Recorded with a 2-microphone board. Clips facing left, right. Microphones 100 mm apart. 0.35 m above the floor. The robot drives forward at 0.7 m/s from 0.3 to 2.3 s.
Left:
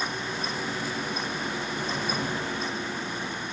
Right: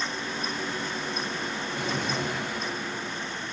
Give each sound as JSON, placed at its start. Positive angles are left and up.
{"t": 1.8, "sound": "a drawer", "side_deg": -80, "distance_m": 4.0}